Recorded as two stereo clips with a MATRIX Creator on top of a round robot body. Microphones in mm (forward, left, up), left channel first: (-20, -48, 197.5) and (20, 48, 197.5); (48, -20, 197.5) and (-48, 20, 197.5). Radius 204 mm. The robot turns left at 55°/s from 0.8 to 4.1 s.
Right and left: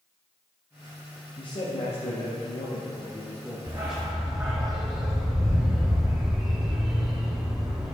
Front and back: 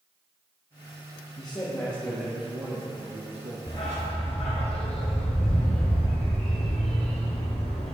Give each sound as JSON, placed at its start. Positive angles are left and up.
{"t": 1.4, "sound": "a man speaking", "azimuth_deg": -70, "distance_m": 1.5}
{"t": 3.7, "sound": "a dog barking", "azimuth_deg": 30, "distance_m": 1.0}